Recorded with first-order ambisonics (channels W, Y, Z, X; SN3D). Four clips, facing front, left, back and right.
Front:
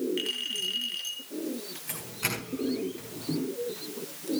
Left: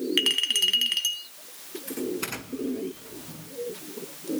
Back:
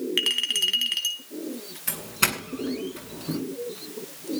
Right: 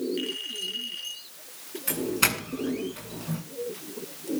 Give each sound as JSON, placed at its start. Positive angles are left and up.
{"t": 0.2, "sound": "a clink", "azimuth_deg": 130, "distance_m": 3.0}
{"t": 1.9, "sound": "a doorbell", "azimuth_deg": -140, "distance_m": 8.0}